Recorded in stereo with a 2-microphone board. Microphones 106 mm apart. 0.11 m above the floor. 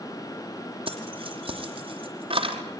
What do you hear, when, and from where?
0.9 s keys jangling: 60° right (ahead or behind), 3.5 m